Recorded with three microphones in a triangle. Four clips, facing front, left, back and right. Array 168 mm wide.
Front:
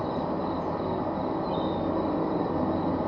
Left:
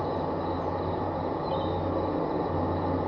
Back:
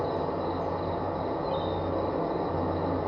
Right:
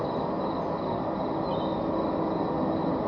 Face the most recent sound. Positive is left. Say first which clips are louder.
# right 1 dB, even
turn(degrees=-40)